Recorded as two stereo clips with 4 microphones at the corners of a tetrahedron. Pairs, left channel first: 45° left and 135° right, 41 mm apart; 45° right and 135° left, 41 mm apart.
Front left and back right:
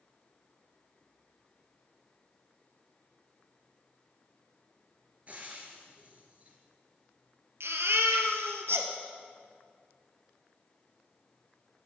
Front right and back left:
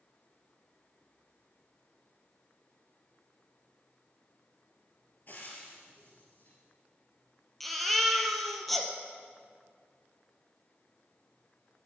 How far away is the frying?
About 3 m.